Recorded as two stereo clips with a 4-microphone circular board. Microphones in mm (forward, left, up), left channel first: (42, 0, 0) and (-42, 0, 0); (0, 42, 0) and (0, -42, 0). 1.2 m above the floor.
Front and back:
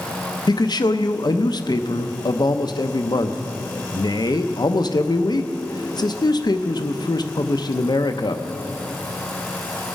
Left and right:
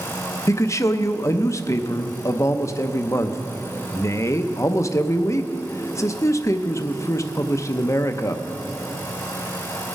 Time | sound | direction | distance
0.5 | a man speaking | 35° left | 0.6 m